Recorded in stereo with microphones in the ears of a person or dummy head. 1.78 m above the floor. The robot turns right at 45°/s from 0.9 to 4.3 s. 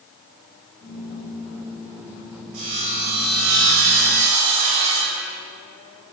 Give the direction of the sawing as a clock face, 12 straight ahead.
4 o'clock.